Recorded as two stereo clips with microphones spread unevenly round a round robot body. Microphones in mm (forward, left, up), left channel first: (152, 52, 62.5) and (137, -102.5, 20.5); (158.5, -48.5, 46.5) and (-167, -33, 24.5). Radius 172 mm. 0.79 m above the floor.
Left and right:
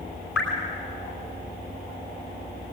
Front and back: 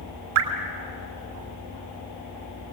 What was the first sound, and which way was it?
Dripping, 170° left.